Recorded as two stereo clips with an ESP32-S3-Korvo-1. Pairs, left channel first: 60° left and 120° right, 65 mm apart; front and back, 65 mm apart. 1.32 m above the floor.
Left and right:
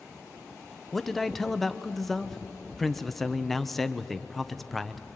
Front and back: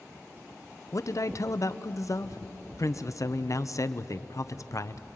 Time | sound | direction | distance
0.9 | a man speaking | 25° right | 0.9 m